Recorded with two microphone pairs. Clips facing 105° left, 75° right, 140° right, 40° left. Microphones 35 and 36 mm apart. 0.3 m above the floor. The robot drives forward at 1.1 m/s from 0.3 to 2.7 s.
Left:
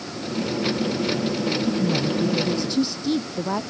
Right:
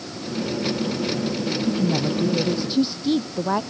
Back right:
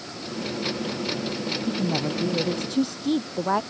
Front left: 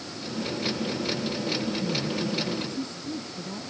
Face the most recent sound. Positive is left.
turn(degrees=-145)